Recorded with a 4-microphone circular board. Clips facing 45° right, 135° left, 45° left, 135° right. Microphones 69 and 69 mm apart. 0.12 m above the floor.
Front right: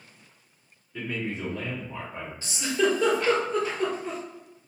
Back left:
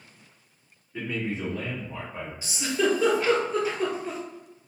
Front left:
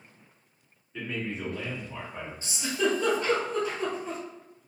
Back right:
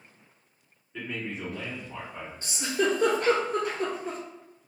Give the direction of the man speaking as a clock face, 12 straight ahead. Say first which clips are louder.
Back left 1 dB, front left 1 dB; 7 o'clock.